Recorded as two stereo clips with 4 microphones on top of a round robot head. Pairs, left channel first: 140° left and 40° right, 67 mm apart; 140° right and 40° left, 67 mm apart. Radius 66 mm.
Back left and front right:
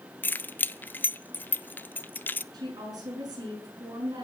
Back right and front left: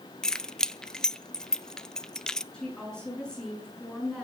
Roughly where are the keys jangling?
Behind left.